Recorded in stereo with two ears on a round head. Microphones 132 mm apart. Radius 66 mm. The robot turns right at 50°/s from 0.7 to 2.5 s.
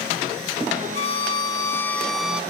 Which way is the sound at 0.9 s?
115° left.